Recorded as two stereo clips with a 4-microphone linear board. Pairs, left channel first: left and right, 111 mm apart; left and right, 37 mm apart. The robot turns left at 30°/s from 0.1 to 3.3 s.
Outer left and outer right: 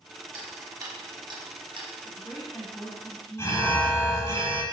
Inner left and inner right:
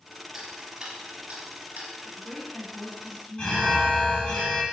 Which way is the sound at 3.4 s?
25° left (ahead or behind).